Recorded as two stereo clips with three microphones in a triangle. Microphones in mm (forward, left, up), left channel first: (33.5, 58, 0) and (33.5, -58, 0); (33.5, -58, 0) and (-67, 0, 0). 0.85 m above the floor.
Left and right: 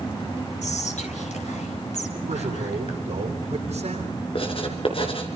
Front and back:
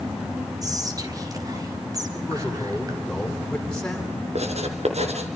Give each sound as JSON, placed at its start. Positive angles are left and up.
{"t": 0.6, "sound": "whispering", "azimuth_deg": 90, "distance_m": 4.5}
{"t": 2.1, "sound": "a man speaking", "azimuth_deg": -115, "distance_m": 9.0}
{"t": 4.3, "sound": "writing", "azimuth_deg": 125, "distance_m": 3.0}